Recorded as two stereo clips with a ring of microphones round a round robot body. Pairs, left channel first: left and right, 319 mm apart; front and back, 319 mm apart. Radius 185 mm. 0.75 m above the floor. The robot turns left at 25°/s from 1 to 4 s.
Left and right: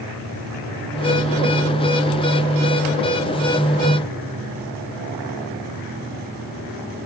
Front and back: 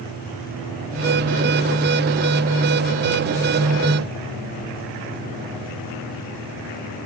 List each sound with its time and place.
Only background noise.